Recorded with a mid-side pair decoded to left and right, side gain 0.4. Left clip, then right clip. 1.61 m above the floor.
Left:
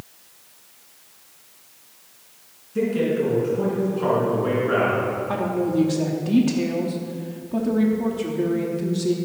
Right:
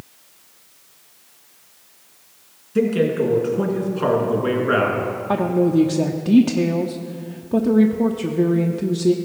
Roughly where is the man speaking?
Ahead right.